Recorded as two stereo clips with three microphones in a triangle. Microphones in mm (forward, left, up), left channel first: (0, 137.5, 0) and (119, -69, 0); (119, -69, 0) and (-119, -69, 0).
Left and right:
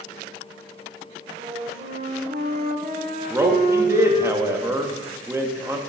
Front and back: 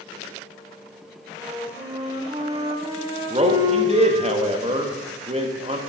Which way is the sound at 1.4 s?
110° right.